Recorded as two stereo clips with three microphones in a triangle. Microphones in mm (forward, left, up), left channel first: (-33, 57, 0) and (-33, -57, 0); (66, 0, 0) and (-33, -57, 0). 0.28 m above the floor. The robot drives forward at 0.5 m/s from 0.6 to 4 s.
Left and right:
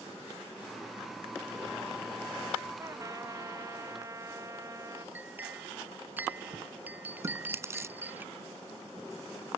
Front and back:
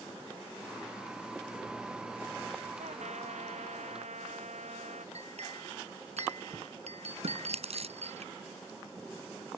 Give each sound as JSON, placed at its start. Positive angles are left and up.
{"t": 2.8, "sound": "a trumpet", "azimuth_deg": -150}
{"t": 5.2, "sound": "a clink", "azimuth_deg": -165}
{"t": 7.2, "sound": "chewing", "azimuth_deg": -155}